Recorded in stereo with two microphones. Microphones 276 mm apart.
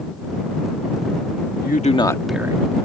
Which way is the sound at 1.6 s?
35° left (ahead or behind).